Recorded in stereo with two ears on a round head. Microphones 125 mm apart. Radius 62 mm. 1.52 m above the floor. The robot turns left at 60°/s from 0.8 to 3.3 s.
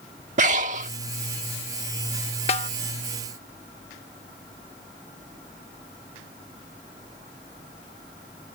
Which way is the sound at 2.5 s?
45° left (ahead or behind).